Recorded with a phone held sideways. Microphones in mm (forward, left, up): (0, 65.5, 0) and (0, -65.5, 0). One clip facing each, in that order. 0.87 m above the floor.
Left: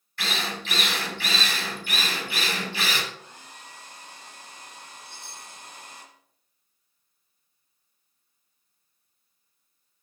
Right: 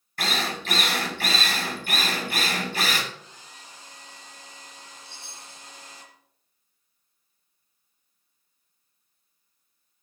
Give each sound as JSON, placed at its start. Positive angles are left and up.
{"t": 0.2, "sound": "a drill", "side_deg": -45, "distance_m": 2.5}
{"t": 3.1, "sound": "a hair dryer", "side_deg": 60, "distance_m": 2.5}
{"t": 5.0, "sound": "a chime", "side_deg": 15, "distance_m": 5.5}